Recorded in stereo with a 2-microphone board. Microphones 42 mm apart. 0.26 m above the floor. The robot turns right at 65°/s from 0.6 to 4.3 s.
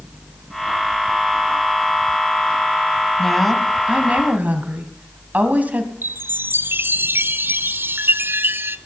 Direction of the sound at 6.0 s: 55° right (ahead or behind).